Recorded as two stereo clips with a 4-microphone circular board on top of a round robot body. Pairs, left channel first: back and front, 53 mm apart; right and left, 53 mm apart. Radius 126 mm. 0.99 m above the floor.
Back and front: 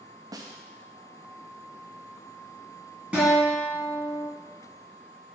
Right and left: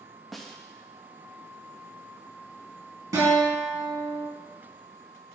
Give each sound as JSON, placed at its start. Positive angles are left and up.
{"t": 0.3, "sound": "a snare drum", "azimuth_deg": 0, "distance_m": 0.7}
{"t": 3.1, "sound": "a guitar", "azimuth_deg": 75, "distance_m": 3.5}